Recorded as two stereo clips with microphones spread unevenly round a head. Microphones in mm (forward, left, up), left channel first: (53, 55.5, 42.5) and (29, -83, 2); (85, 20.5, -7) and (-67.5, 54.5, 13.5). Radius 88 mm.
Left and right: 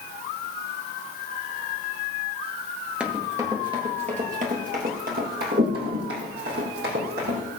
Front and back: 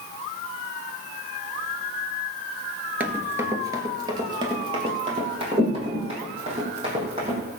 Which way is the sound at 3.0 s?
140° left.